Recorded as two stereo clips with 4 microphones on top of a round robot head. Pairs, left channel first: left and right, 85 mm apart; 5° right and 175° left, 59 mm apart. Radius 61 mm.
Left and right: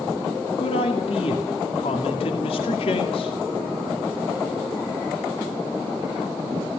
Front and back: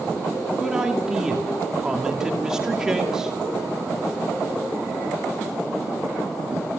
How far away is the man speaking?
About 2.5 m.